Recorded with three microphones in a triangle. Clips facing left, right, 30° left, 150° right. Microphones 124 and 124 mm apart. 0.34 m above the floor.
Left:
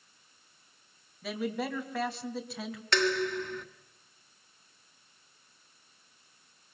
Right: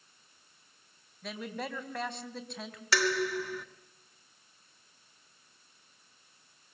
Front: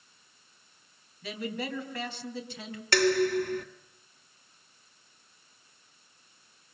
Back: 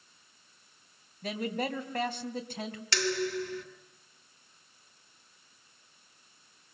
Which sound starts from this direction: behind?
A man speaking, at 1.2 s.